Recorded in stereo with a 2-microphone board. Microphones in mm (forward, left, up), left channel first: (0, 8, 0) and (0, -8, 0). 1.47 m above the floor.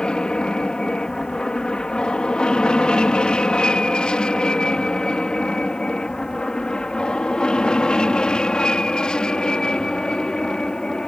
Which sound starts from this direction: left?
An aircraft, at 0.0 s.